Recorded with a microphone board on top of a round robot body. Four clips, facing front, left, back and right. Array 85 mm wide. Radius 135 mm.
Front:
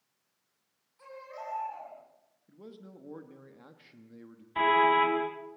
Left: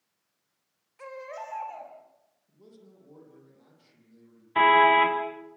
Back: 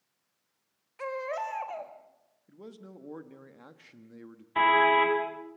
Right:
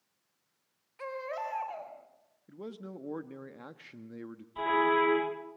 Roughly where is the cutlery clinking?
I don't hear cutlery clinking.